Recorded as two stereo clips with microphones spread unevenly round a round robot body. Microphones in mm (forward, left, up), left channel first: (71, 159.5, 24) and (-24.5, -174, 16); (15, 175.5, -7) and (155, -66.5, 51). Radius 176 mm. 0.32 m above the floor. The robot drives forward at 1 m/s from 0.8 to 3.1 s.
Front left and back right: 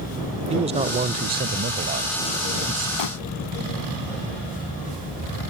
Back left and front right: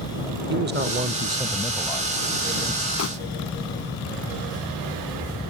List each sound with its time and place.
0.5 s a man speaking: 70° right; by 2.9 s 170° right
3.0 s crumpling: 85° left; by 3.1 s 90° left